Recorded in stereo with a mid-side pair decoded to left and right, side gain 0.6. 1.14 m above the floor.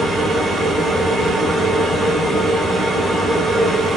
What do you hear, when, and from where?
0.0 s a machine running: 5° right, 2 m